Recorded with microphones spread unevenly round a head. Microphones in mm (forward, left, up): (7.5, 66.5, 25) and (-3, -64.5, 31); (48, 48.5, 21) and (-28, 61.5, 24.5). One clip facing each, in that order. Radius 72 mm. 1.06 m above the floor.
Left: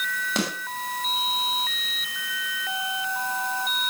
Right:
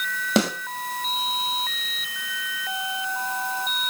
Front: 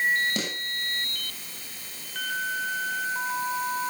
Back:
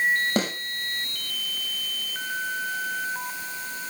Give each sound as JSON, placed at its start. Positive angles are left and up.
{"t": 0.4, "sound": "a snare drum", "azimuth_deg": -125, "distance_m": 6.5}